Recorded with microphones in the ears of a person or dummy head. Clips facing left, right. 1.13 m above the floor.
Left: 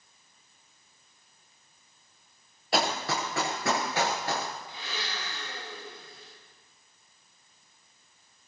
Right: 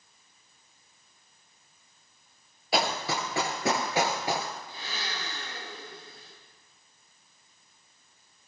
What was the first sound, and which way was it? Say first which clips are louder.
Running footsteps: even; centre (ahead or behind).